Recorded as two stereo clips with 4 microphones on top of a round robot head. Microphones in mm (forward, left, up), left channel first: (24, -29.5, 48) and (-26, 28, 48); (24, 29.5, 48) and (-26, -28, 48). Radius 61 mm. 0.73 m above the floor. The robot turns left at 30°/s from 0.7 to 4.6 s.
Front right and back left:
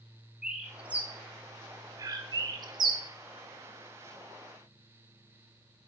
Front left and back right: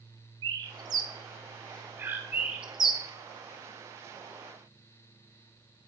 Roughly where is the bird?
Behind right.